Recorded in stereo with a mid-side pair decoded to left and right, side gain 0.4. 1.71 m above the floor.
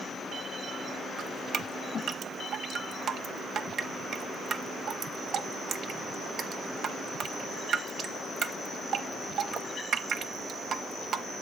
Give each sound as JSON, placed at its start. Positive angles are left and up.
{"t": 1.2, "sound": "dripping", "azimuth_deg": -65, "distance_m": 0.6}